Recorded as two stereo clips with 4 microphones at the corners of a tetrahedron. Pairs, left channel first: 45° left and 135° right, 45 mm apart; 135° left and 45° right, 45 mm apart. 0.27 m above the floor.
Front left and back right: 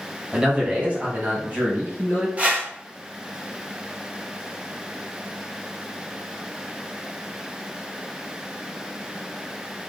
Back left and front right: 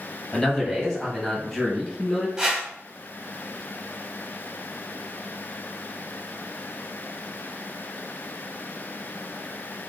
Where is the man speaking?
165° right, 1.6 m; by 2.3 s 145° right, 2.5 m.